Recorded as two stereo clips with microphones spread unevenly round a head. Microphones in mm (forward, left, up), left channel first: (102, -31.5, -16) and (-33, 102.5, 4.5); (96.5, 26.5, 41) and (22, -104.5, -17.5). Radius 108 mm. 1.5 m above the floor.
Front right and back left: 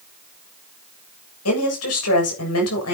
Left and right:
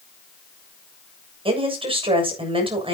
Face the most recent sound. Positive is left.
turn(degrees=-65)